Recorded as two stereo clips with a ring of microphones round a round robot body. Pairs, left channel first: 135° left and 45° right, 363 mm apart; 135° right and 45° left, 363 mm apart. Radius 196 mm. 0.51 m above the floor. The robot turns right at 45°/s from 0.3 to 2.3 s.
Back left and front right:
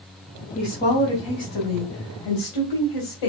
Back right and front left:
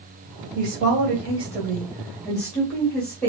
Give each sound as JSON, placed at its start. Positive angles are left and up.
{"t": 0.6, "sound": "a woman speaking", "azimuth_deg": 60, "distance_m": 2.0}